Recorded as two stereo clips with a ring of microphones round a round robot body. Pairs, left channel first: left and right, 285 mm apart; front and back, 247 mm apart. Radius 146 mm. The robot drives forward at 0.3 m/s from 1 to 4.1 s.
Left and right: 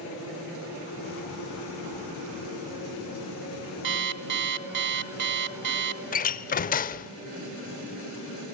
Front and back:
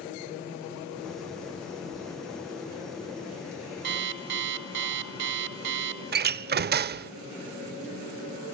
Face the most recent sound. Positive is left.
turn(degrees=145)